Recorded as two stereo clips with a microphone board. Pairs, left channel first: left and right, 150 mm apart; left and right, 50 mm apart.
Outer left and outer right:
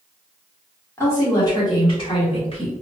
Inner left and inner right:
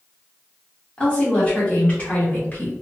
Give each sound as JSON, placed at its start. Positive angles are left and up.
{"t": 1.0, "sound": "a woman speaking", "side_deg": 15, "distance_m": 1.2}